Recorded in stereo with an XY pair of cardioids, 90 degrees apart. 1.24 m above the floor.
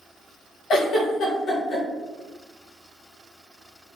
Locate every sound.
0.7 s a giggle: 65° left, 1.3 m